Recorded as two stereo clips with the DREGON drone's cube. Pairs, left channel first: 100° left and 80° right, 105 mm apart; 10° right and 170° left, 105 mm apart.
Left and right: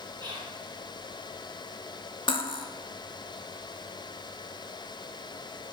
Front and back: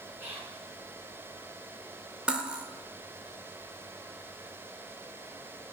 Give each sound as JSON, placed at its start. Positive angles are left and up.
{"t": 0.2, "sound": "whispering", "azimuth_deg": -120, "distance_m": 3.0}
{"t": 2.3, "sound": "cutlery clinking", "azimuth_deg": 95, "distance_m": 0.6}